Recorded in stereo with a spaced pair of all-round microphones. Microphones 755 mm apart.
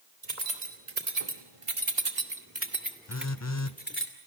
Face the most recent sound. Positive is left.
turn(degrees=20)  # may be behind; listen again after turning